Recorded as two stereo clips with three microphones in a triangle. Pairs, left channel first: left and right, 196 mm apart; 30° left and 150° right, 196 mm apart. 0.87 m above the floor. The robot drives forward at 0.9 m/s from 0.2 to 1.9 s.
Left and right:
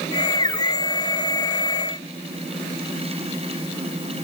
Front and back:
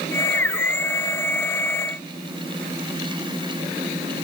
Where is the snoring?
No snoring in this recording.